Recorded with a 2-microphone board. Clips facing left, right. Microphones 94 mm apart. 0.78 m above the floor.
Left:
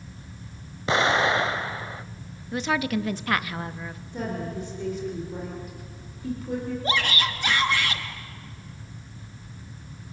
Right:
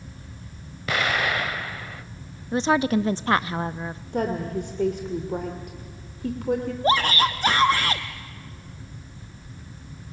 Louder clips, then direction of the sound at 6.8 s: Right 8 dB; 35° right (ahead or behind).